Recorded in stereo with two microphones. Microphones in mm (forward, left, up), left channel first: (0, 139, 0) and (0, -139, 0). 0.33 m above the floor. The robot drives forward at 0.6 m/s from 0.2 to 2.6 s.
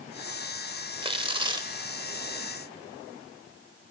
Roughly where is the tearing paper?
Centre.